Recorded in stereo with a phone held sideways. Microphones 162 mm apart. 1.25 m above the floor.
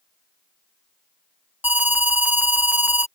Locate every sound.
1.6 s an alarm: 10° right (ahead or behind)